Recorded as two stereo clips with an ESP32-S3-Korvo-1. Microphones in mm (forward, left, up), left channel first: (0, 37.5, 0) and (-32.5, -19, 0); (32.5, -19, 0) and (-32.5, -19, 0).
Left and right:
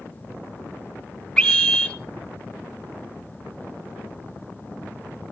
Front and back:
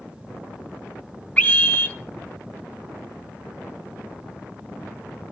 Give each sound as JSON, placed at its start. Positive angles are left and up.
{"t": 1.4, "sound": "a scream", "azimuth_deg": 5, "distance_m": 1.5}